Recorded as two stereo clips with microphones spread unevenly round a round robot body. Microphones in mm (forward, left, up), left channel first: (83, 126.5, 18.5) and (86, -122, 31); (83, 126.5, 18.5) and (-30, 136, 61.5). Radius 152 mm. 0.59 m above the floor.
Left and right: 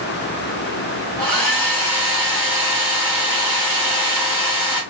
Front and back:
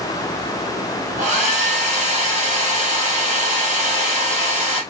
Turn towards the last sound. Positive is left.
turn(degrees=160)